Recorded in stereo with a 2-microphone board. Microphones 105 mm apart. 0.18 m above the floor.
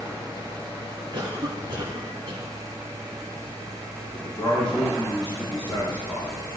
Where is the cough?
50° right (ahead or behind), 1.8 m.